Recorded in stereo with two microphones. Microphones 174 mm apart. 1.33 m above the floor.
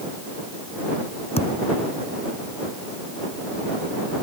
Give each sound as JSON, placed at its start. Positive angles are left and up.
{"t": 1.4, "sound": "a thud", "side_deg": 35}